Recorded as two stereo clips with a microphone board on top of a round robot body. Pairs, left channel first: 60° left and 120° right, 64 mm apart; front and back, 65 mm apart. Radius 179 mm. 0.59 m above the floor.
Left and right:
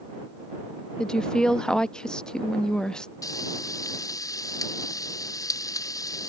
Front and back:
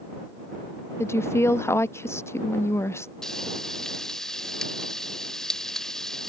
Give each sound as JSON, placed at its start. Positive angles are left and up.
{"t": 1.0, "sound": "a woman speaking", "azimuth_deg": -15}
{"t": 3.2, "sound": "frying", "azimuth_deg": 80}